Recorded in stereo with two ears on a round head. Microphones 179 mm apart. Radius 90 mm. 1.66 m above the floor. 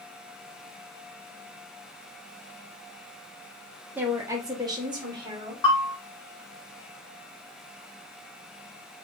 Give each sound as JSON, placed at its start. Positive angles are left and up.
{"t": 4.0, "sound": "a woman speaking", "side_deg": -10, "distance_m": 0.6}
{"t": 5.6, "sound": "a bell", "side_deg": 20, "distance_m": 0.8}